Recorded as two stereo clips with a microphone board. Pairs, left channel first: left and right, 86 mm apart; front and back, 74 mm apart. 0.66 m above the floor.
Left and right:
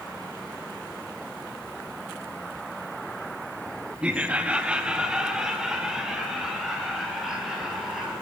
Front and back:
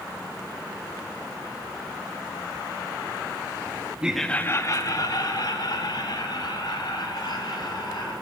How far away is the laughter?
About 0.7 m.